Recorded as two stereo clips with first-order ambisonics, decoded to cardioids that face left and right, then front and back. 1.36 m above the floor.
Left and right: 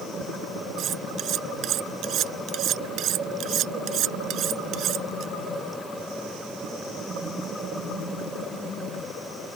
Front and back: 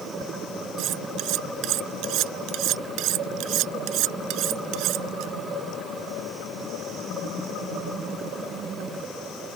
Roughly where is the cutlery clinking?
Behind right.